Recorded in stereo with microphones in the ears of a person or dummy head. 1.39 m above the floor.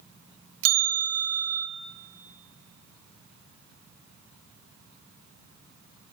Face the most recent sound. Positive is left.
turn(degrees=-75)  # may be behind; listen again after turning